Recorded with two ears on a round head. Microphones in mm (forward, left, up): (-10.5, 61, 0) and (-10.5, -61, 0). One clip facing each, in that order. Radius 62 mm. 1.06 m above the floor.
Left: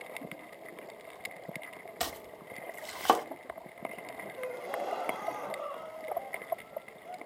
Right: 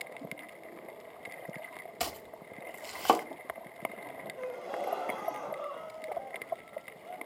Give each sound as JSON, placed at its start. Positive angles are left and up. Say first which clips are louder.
{"t": 2.0, "sound": "chopping", "louder": "even", "side_deg": -5, "distance_m": 0.8}
{"t": 4.4, "sound": "a gasp", "louder": "even", "side_deg": 0, "distance_m": 1.6}